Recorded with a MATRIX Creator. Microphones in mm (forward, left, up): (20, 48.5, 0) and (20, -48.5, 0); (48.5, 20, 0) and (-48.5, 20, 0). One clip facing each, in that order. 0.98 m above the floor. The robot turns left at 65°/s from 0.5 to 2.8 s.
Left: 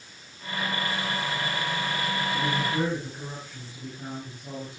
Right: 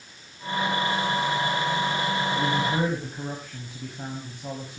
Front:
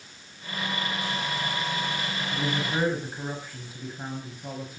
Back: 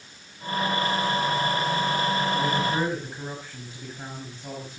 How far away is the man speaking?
About 5.5 m.